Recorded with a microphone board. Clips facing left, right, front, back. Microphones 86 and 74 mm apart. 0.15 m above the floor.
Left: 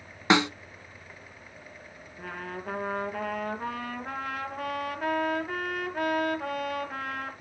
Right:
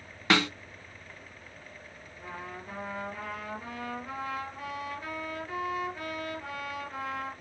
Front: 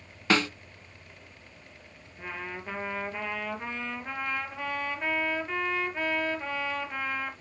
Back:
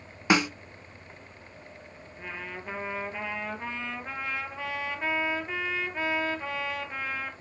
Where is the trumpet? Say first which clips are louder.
Left 4 dB, front 1 dB; 95° left, 3 m.